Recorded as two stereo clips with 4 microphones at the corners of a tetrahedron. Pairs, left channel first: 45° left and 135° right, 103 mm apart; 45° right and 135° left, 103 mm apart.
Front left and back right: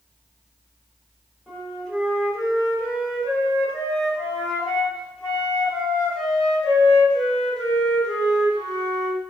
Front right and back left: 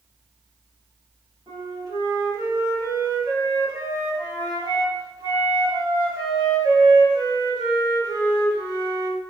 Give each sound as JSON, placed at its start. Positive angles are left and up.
{"t": 1.5, "sound": "a flute", "azimuth_deg": 125, "distance_m": 1.9}